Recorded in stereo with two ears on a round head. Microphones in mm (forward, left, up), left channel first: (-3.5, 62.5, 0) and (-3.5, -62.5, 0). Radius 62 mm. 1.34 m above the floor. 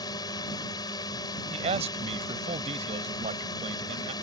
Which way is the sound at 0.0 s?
30° left (ahead or behind).